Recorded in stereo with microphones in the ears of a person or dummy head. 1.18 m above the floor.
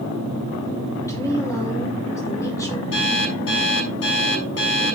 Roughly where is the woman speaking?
Centre.